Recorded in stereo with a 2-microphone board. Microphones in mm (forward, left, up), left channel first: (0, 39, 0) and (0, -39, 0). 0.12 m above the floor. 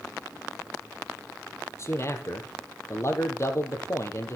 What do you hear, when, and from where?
1.8 s a man speaking: 35° left (ahead or behind), 2.5 m